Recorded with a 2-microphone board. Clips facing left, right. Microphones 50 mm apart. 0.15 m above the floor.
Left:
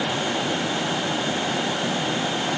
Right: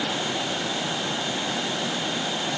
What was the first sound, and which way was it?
Only background noise.